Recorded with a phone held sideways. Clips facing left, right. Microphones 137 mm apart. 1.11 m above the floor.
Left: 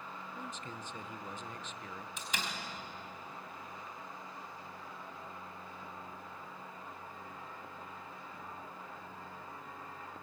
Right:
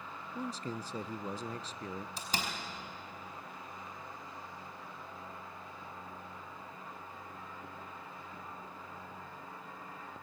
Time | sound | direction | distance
0.3 | a man speaking | 35° right (ahead or behind) | 0.7 m
2.2 | a door slam | 35° right (ahead or behind) | 4.5 m